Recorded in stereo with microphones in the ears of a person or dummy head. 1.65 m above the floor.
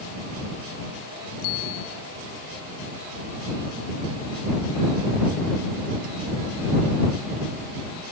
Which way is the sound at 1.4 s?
80° left.